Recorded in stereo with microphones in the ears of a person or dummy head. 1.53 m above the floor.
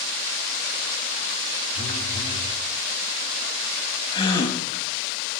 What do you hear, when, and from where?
1.8 s a phone buzzing: 30° left (ahead or behind), 4 m
4.1 s a gasp: 25° left (ahead or behind), 3 m